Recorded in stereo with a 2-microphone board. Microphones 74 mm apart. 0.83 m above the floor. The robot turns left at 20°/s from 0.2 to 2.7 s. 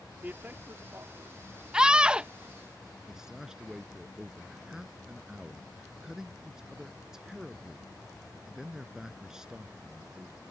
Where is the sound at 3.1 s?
10° right (ahead or behind).